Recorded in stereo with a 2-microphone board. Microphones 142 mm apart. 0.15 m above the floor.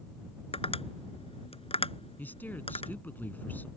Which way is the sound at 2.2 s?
15° left (ahead or behind).